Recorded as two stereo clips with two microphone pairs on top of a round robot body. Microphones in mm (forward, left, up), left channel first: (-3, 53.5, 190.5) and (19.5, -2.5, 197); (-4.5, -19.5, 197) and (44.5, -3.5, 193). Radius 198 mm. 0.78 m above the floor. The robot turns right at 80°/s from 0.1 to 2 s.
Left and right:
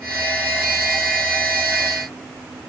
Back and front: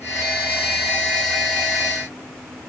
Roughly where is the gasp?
No gasp in this recording.